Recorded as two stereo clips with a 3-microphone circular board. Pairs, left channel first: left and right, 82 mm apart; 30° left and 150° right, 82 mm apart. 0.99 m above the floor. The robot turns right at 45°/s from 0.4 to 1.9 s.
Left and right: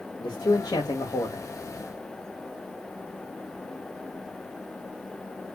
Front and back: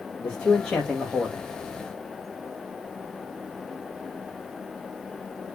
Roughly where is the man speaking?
Left.